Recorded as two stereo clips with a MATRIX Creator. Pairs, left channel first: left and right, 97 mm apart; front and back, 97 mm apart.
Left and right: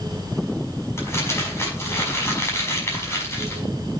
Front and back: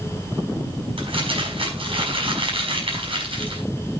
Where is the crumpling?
155° left, 5 m.